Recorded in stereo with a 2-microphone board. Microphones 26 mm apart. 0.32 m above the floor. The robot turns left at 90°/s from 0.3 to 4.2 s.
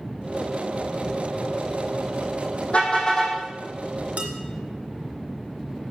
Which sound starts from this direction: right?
Dishes clattering, at 4.2 s.